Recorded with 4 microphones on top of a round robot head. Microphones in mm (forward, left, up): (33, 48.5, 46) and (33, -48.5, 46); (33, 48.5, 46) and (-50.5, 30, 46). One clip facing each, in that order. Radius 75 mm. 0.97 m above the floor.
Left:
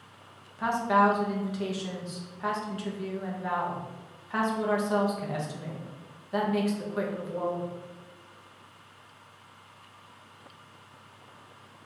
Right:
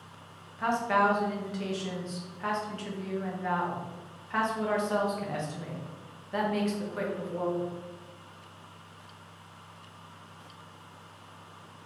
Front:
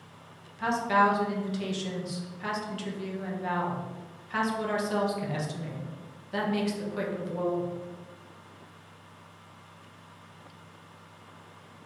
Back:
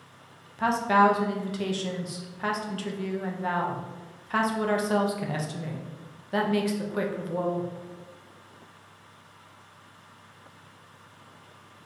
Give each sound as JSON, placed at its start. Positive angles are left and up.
{"t": 0.6, "sound": "a woman speaking", "azimuth_deg": 165, "distance_m": 0.9}